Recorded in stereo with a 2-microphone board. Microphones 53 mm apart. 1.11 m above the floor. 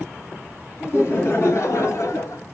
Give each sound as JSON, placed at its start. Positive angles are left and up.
{"t": 0.8, "sound": "laughter", "side_deg": 50, "distance_m": 2.0}